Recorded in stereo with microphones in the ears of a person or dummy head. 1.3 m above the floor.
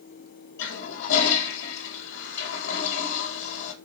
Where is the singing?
I don't hear singing.